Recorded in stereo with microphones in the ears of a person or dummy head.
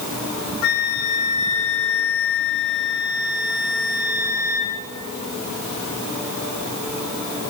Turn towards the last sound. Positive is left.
turn(degrees=65)  # may be behind; listen again after turning